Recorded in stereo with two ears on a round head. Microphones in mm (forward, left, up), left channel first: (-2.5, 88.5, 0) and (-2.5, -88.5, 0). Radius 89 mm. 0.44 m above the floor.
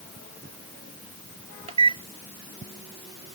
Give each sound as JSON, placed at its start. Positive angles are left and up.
{"t": 1.7, "sound": "a microwave", "side_deg": -30}